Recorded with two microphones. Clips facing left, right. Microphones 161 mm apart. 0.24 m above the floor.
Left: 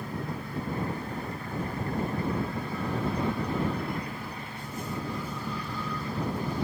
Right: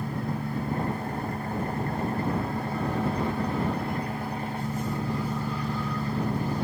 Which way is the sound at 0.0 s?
50° right (ahead or behind).